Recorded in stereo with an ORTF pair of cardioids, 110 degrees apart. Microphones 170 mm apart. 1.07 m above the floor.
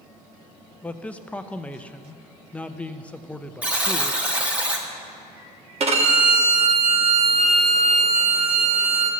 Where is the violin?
40° right, 1.3 m.